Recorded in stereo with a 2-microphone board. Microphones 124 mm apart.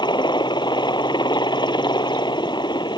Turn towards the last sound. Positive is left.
turn(degrees=35)  # may be behind; listen again after turning